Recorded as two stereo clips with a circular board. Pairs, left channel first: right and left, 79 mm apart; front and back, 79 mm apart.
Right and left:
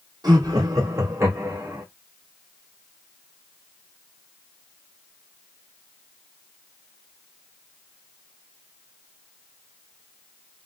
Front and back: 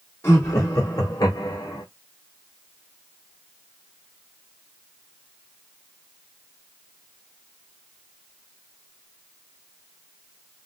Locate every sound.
0.2 s laughter: 55° left, 1.8 m; by 1.9 s 30° left, 1.8 m